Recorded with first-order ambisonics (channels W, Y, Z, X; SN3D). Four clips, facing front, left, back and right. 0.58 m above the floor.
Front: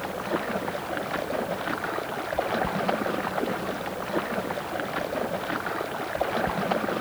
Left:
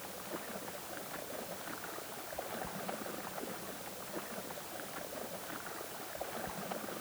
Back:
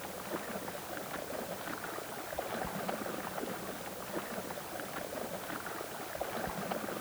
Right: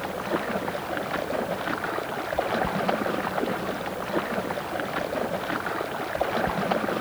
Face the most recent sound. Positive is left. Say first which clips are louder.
# right 16 dB, front 11 dB
turn(degrees=-55)